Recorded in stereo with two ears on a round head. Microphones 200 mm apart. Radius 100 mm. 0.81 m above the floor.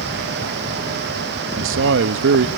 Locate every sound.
1.6 s a man speaking: 60° right (ahead or behind), 0.7 m